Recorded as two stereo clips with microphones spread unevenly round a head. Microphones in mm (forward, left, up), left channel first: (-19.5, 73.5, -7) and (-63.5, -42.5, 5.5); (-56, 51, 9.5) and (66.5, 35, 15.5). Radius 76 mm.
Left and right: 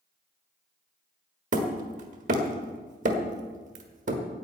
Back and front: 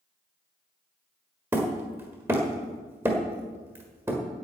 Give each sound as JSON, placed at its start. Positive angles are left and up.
{"t": 1.5, "sound": "hammering", "azimuth_deg": -80, "distance_m": 1.4}